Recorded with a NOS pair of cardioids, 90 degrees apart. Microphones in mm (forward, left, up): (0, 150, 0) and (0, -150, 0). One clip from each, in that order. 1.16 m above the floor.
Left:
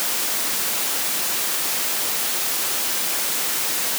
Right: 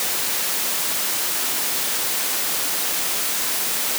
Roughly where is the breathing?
I don't hear breathing.